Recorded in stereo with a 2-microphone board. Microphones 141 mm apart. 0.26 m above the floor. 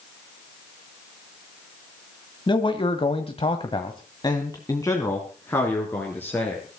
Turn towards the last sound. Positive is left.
turn(degrees=10)  # may be behind; listen again after turning